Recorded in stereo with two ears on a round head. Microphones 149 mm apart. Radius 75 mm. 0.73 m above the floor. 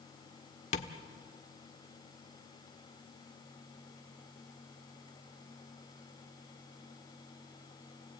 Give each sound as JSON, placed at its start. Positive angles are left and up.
{"t": 0.7, "sound": "tapping", "side_deg": 45, "distance_m": 1.2}